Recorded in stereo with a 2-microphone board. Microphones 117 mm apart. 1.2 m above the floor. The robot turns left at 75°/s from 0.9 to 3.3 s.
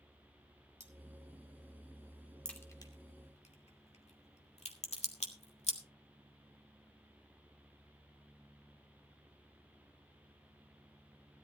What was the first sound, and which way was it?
Cutlery clinking, 85° right.